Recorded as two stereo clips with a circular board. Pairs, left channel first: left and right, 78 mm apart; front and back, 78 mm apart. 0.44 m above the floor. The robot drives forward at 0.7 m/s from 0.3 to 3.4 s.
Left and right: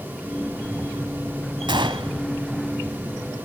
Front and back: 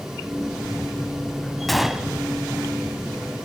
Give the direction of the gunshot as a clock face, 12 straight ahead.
3 o'clock.